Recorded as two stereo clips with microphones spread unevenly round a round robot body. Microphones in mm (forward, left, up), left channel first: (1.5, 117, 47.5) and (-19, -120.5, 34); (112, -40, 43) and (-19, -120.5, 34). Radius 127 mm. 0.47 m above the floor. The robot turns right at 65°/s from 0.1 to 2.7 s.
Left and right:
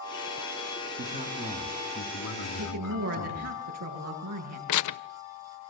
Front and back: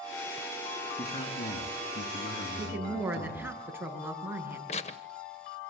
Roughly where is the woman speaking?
Right.